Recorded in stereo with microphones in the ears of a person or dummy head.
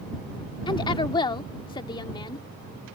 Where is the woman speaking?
25° left (ahead or behind).